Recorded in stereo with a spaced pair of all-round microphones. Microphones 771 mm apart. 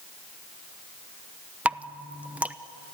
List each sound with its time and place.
1.6 s dripping: centre (ahead or behind), 0.8 m